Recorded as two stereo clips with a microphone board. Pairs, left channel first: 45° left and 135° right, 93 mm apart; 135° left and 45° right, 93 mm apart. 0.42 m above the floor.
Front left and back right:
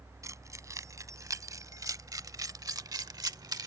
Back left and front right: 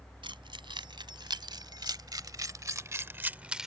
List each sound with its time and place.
0.2 s keys jangling: 75° right; by 3.7 s 130° right